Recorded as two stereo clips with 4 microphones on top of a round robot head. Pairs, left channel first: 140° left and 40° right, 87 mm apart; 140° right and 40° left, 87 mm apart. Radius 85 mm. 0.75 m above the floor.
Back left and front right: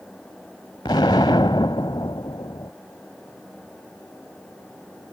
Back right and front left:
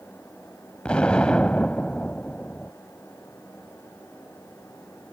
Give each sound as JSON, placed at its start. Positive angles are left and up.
{"t": 0.8, "sound": "an explosion", "azimuth_deg": 150}